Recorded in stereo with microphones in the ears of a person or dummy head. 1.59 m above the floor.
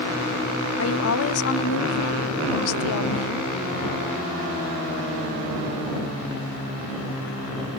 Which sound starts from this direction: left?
A woman speaking, at 0.8 s.